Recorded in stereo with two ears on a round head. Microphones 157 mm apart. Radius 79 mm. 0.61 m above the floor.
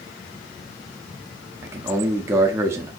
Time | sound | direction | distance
1.6 | a man speaking | 15° right (ahead or behind) | 0.7 m